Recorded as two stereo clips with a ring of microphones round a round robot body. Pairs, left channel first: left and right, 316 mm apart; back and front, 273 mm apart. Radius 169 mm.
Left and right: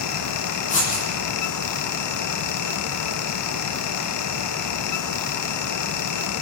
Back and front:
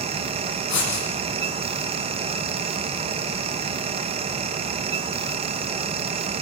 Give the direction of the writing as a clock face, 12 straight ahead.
7 o'clock.